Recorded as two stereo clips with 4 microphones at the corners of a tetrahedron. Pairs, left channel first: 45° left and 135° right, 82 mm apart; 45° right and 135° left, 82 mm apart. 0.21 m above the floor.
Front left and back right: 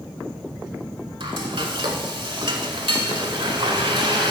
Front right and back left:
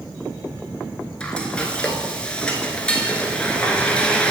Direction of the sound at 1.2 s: 120° right.